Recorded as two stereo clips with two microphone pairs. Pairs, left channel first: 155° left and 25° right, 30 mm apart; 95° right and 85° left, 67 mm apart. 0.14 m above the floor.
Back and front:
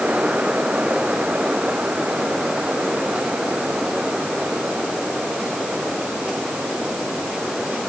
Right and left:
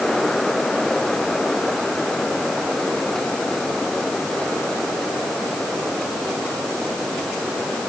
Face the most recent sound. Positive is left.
No sound to turn to.